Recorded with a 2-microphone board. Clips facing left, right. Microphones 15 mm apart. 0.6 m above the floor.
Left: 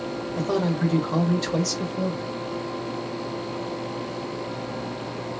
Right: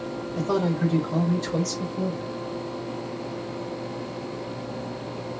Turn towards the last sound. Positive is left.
turn(degrees=65)  # may be behind; listen again after turning